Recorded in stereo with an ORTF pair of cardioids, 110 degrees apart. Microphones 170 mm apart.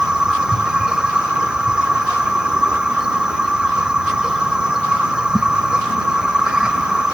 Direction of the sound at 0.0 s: 5° right.